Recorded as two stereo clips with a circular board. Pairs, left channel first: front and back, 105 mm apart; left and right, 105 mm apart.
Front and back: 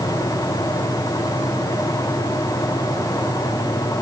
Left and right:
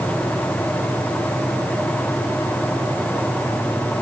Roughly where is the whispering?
No whispering in this recording.